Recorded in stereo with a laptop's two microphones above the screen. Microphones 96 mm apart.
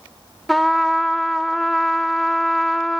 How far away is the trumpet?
About 0.8 m.